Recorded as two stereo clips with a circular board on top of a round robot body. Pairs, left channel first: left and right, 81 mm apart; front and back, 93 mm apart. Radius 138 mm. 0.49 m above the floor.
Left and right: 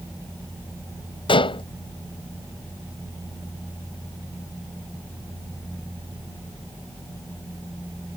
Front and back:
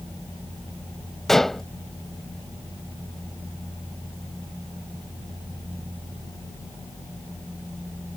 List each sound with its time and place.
1.3 s dishes clattering: 85° left